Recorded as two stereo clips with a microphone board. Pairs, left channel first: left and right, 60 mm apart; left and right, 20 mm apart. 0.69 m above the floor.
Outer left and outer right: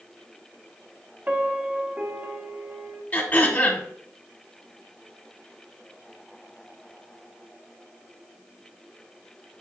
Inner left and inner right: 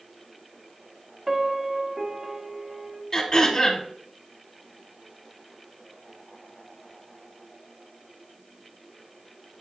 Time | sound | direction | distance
1.3 | a piano | 25° right (ahead or behind) | 1.3 m
3.1 | throat clearing | 30° left (ahead or behind) | 2.5 m